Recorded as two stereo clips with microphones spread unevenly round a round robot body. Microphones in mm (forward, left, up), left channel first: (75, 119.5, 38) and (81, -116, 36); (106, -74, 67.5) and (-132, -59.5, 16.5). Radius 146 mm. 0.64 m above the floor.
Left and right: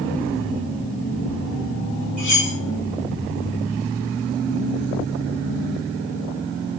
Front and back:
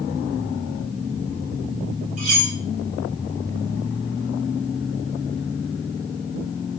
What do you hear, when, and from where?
2.2 s cutlery clinking: 155° left, 1.9 m